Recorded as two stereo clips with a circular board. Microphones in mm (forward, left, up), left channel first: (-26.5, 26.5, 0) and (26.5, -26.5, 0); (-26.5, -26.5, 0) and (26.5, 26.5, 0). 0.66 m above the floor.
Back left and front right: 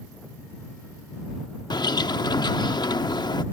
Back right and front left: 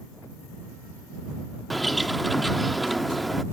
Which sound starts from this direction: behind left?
A bird, at 1.7 s.